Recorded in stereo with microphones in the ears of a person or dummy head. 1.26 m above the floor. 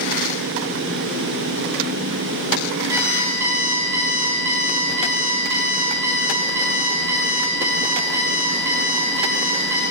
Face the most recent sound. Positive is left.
turn(degrees=-15)  # may be behind; listen again after turning